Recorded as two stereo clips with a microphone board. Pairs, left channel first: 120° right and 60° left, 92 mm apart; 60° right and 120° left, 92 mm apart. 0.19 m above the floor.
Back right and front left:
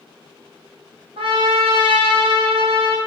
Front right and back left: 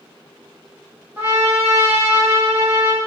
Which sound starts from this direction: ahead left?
A trumpet, at 1.2 s.